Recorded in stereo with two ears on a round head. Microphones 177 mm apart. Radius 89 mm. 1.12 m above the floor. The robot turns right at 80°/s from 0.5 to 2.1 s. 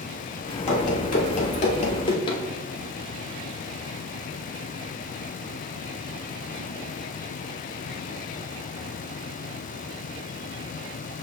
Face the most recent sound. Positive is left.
turn(degrees=25)  # may be behind; listen again after turning